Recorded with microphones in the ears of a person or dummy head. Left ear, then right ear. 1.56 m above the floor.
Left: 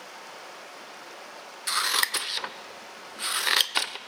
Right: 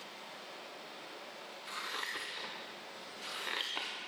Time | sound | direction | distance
0.0 | running water | 50° left (ahead or behind) | 1.2 m
1.7 | scissors | 60° left (ahead or behind) | 0.5 m